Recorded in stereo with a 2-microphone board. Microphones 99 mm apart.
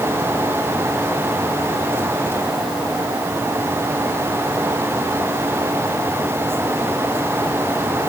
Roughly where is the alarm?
No alarm in this recording.